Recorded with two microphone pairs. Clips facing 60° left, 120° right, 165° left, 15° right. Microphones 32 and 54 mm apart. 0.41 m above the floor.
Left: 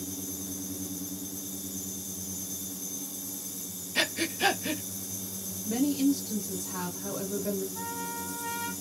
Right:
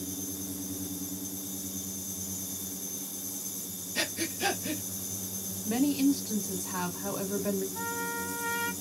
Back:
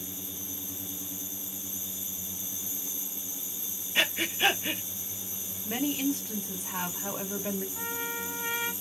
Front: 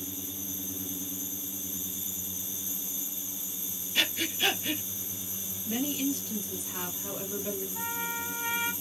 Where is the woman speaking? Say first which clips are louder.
Even, back 1 dB; 165° right, 1.3 m.